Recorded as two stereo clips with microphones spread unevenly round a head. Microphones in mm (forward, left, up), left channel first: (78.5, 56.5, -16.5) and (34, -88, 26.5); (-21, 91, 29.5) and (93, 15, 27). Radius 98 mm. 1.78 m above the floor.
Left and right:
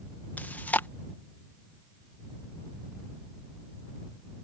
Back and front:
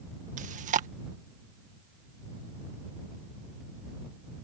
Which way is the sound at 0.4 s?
10° right.